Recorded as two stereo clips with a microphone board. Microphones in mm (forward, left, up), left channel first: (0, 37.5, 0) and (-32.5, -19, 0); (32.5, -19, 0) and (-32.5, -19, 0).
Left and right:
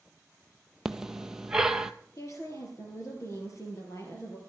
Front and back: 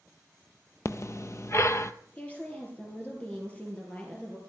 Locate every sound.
0.8 s breathing: 40° right, 0.6 m
2.2 s a woman speaking: 60° left, 2.5 m